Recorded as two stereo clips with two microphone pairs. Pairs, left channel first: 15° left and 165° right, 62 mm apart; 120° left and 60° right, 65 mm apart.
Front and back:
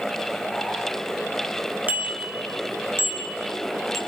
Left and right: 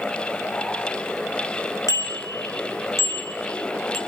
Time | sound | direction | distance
1.9 | a bicycle bell | 130° left | 2.5 m